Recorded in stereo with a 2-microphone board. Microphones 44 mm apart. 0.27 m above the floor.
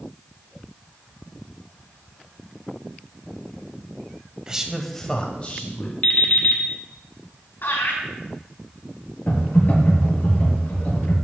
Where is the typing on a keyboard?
50° left (ahead or behind), 4.5 m.